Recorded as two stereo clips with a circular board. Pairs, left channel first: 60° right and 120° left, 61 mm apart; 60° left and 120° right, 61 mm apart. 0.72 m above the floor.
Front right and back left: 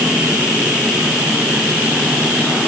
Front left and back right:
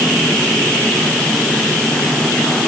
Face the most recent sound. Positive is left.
No sound to turn to.